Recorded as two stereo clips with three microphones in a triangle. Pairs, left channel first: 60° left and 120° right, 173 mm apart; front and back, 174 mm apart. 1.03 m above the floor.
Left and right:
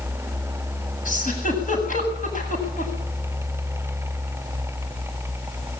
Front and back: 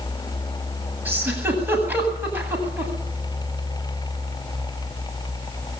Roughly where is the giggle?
Left.